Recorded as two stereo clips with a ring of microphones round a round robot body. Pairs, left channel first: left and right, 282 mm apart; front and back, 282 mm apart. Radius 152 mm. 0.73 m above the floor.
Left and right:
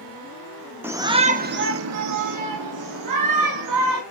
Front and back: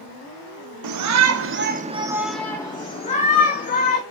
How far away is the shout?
About 1.4 m.